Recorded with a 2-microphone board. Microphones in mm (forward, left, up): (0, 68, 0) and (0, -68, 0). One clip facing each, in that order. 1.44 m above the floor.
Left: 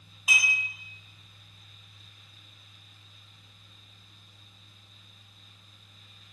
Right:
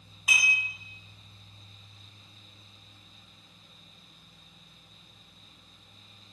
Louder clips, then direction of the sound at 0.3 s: Left 1 dB; 15° left (ahead or behind).